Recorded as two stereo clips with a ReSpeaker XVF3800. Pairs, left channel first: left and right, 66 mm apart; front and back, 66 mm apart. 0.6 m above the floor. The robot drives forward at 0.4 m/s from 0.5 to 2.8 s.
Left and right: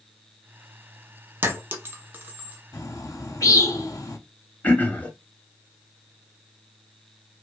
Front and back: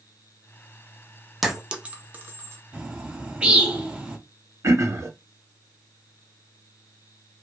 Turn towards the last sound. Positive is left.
turn(degrees=150)